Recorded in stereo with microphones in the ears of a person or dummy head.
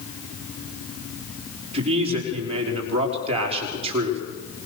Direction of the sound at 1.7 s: 35° right (ahead or behind).